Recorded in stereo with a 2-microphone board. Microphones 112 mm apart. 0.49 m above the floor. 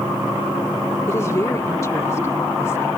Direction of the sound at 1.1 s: 25° left (ahead or behind).